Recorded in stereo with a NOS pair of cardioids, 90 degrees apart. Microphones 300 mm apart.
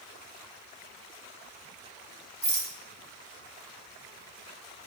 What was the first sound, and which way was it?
A rattle, 30° right.